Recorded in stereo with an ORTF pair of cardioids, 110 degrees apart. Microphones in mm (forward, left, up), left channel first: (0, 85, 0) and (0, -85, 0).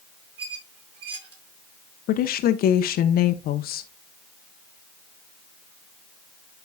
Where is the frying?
I don't hear frying.